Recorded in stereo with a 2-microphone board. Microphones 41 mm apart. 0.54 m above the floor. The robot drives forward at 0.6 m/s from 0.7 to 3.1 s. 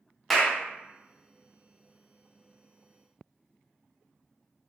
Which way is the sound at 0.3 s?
Centre (ahead or behind).